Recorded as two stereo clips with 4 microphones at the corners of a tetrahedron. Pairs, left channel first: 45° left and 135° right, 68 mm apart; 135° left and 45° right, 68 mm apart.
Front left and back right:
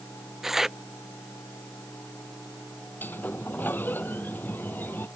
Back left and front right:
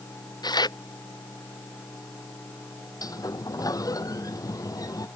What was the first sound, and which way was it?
Tearing paper, 140° left.